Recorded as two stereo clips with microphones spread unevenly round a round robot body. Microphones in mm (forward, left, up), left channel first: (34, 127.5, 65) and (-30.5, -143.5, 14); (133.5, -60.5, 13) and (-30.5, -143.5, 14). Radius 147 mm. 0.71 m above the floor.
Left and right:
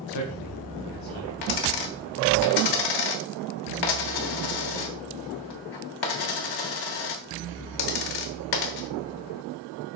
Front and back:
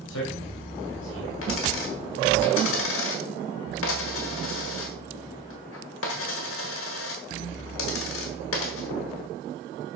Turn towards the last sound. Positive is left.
turn(degrees=70)